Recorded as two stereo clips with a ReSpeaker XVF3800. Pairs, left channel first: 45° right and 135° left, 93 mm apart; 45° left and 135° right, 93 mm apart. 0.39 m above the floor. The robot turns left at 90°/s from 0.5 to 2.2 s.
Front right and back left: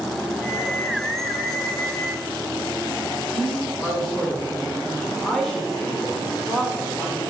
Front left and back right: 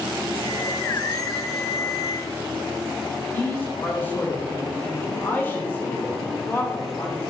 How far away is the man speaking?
About 1.2 m.